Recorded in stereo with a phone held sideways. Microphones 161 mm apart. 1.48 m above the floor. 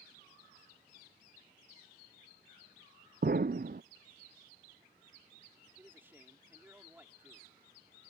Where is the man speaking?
10° right (ahead or behind).